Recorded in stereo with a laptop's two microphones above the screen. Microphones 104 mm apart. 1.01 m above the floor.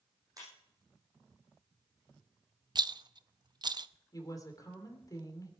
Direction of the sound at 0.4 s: 35° right (ahead or behind).